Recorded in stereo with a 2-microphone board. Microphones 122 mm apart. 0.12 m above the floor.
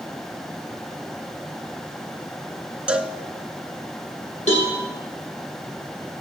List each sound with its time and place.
2.9 s a cowbell: 10° right (ahead or behind), 0.9 m
4.5 s a cowbell: 65° left (ahead or behind), 4 m